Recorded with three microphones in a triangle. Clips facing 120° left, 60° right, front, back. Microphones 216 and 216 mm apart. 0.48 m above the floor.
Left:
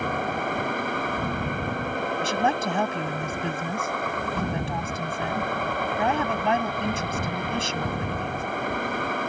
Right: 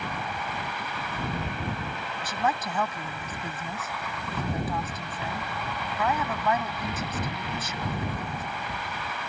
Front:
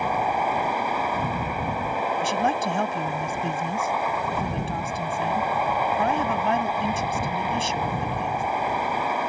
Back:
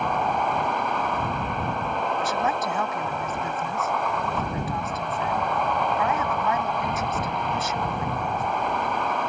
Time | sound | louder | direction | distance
0.0 | a vehicle | left 7 dB, even | 85° left | ?
2.2 | a woman speaking | left 3 dB, front 2 dB | 60° left | ?